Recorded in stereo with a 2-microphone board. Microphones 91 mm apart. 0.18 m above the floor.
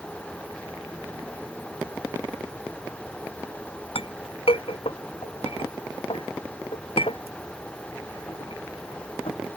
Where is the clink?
85° left.